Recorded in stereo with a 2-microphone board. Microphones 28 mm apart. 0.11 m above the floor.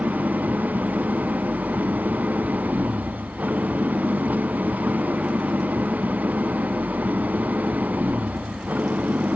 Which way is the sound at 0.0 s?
85° right.